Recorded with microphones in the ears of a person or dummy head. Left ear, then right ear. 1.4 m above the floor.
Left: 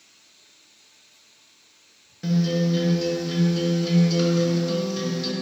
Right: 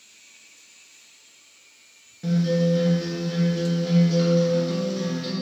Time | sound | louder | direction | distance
2.2 | a guitar | right 2 dB | 20° left (ahead or behind) | 1.3 m